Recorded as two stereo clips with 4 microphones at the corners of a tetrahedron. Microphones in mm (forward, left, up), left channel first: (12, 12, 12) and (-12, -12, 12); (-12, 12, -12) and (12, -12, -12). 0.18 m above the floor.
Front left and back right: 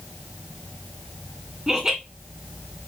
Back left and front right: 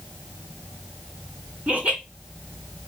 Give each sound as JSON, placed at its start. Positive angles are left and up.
{"t": 1.7, "sound": "laughter", "azimuth_deg": -70, "distance_m": 2.0}